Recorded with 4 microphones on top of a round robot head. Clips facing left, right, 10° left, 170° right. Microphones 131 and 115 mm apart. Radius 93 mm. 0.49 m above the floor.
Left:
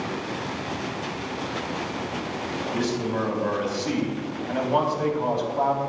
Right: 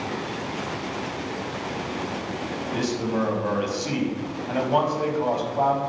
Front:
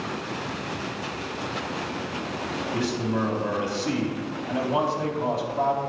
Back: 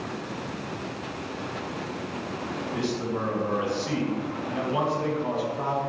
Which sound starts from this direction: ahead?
A man speaking, at 2.7 s.